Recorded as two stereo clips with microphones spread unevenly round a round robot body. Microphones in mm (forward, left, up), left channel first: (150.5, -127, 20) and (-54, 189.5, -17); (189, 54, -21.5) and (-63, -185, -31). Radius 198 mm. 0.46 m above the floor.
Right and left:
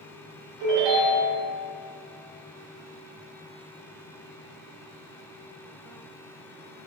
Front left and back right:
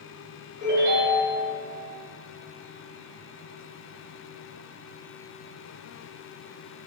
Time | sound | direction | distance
0.6 | a ringtone | 155° left | 1.8 m